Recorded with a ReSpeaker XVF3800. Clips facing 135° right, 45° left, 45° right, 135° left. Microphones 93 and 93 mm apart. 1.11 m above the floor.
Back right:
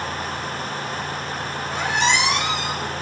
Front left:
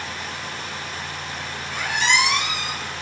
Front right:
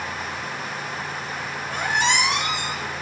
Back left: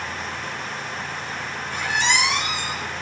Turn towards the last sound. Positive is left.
turn(degrees=-80)